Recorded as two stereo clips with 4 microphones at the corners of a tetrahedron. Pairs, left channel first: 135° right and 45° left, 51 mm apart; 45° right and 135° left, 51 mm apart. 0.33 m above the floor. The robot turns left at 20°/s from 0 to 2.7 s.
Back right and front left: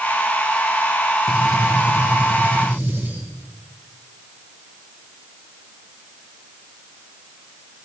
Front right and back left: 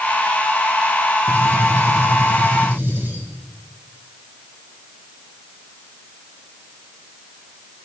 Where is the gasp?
No gasp in this recording.